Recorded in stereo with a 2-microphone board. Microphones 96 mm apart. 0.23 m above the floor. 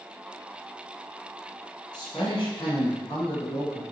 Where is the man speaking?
50° left (ahead or behind), 1.4 m; by 3.8 s 70° left (ahead or behind), 2.5 m.